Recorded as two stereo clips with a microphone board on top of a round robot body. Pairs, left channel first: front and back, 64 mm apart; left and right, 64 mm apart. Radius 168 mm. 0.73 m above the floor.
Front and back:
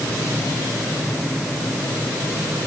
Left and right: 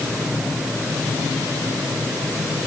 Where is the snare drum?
I don't hear a snare drum.